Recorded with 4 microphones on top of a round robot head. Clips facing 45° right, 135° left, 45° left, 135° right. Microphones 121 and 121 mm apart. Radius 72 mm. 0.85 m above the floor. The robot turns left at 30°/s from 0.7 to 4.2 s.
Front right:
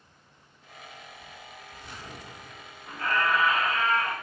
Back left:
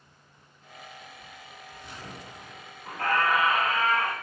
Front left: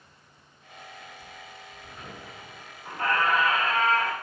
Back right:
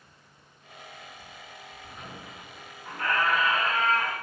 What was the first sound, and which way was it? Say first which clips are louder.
A squeak: back left 2 dB, front left 1 dB; 140° left.